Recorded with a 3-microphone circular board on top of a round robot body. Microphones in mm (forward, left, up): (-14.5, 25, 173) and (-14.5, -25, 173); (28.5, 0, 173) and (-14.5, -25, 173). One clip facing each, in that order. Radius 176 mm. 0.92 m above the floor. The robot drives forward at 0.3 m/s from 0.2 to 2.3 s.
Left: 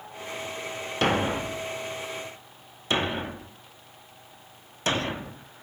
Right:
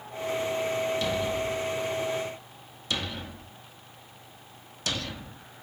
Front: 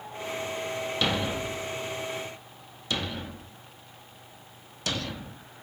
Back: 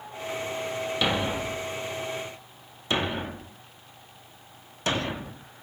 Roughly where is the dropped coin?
No dropped coin in this recording.